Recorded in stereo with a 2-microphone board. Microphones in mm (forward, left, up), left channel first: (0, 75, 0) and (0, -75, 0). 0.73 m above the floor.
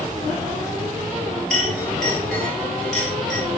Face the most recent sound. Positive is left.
turn(degrees=0)  # may be behind; listen again after turning